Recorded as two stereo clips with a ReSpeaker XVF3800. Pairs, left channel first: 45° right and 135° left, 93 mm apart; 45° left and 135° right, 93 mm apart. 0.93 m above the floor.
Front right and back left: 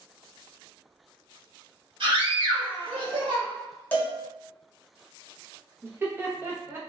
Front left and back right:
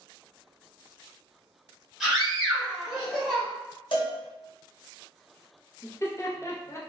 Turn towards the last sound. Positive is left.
turn(degrees=85)